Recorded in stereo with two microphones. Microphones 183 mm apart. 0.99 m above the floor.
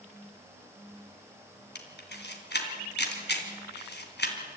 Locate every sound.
1.8 s a camera shutter: 75° left (ahead or behind), 2.5 m